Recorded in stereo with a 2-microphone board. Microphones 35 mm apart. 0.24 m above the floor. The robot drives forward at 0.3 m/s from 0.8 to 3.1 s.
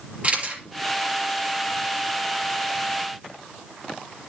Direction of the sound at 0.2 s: 35° right (ahead or behind).